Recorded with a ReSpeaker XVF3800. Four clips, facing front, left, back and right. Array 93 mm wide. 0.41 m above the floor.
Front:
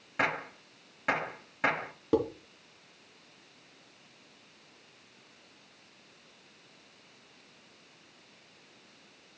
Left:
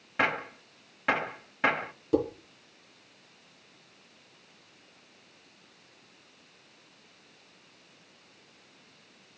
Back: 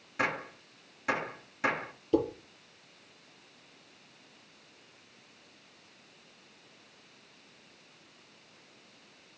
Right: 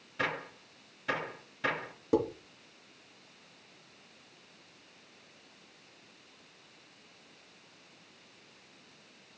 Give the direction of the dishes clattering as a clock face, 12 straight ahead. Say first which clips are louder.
Left 2 dB, even; 1 o'clock.